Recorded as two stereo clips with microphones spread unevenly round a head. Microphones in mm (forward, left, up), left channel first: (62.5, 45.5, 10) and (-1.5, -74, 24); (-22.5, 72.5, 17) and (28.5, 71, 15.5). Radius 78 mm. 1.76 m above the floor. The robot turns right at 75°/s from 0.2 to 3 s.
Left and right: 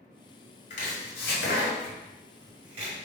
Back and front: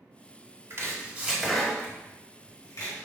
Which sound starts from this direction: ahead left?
Chopping, at 0.7 s.